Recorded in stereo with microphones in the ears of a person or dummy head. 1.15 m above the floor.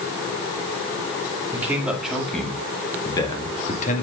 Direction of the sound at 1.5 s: 15° right (ahead or behind).